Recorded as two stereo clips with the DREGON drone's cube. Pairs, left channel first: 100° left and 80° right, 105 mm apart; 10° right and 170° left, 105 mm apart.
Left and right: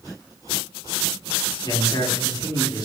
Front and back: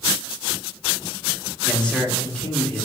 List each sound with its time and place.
1.6 s a man speaking: 65° left, 1.3 m